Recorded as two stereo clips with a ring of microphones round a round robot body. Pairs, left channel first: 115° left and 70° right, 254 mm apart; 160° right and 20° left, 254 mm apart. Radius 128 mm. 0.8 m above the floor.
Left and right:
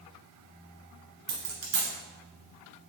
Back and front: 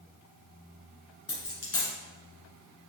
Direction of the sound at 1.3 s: 90° right.